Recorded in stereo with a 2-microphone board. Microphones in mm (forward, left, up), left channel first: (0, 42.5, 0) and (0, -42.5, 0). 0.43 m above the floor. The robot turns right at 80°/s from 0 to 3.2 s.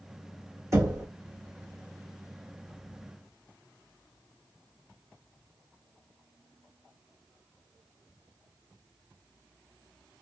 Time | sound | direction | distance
0.7 | knocking | 35° right (ahead or behind) | 1.1 m